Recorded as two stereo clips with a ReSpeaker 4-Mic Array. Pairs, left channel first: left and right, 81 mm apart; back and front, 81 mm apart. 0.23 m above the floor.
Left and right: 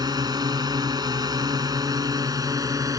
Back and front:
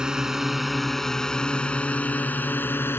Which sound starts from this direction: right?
A drone, at 0.0 s.